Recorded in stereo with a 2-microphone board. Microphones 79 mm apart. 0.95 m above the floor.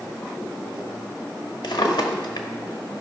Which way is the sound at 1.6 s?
65° left (ahead or behind).